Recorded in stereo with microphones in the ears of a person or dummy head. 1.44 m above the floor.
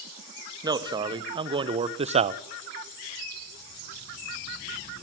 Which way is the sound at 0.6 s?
30° right (ahead or behind).